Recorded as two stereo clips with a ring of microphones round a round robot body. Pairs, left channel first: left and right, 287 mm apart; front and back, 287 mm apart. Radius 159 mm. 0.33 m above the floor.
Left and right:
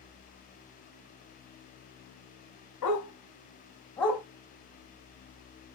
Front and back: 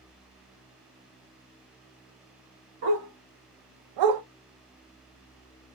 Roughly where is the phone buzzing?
No phone buzzing in this recording.